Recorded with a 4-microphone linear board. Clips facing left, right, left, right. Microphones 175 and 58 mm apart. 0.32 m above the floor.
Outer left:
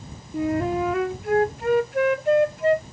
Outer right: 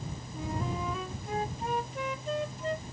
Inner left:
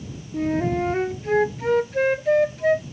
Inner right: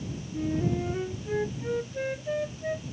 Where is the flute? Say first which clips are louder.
Outer left 13 dB, inner left 6 dB; 85° left.